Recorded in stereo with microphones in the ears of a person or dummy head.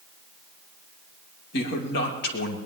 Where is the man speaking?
65° left (ahead or behind), 3 m.